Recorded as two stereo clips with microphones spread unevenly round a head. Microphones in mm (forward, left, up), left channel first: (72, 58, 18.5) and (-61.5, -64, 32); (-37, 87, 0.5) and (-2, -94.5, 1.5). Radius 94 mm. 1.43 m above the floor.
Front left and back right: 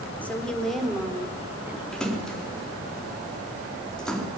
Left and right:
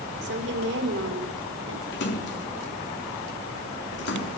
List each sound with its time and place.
0.2 s a woman speaking: 40° right, 4 m; by 1.8 s 55° right, 4.5 m
1.9 s a splash: 130° left, 3.5 m